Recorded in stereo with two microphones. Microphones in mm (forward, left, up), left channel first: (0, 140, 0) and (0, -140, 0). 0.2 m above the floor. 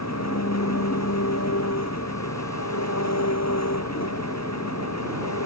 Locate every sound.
0.0 s an engine running: 65° left (ahead or behind)